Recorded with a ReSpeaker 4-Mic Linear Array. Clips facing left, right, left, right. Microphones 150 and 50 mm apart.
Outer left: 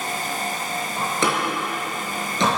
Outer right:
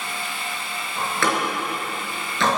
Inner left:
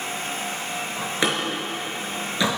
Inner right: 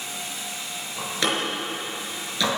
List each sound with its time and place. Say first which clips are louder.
1.0 s a door slam: even, even; 20° left (ahead or behind), 4.5 m